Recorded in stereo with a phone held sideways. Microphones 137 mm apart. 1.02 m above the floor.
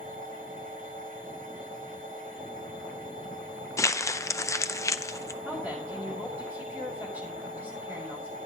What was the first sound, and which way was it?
A machine running, 85° right.